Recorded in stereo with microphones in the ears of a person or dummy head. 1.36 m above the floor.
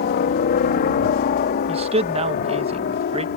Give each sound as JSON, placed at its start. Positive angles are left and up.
{"t": 0.0, "sound": "a helicopter", "side_deg": 45}
{"t": 1.7, "sound": "a man speaking", "side_deg": -35}